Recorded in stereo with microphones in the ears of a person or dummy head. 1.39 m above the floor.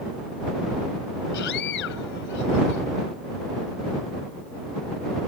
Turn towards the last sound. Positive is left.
turn(degrees=75)  # may be behind; listen again after turning